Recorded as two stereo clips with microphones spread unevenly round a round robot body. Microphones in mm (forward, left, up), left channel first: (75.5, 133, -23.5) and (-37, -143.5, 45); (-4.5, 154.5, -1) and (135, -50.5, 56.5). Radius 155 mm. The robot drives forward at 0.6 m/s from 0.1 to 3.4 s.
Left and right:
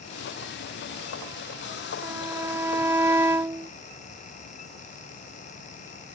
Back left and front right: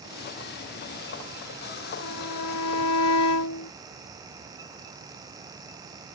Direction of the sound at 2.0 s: 165° left.